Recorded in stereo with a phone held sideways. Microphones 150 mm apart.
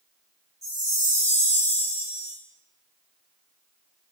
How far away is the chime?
About 1.8 m.